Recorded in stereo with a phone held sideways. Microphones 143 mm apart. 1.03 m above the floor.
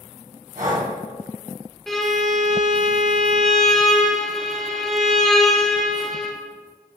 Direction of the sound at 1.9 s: Centre (ahead or behind).